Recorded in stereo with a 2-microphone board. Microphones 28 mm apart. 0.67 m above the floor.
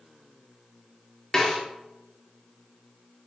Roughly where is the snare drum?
Left.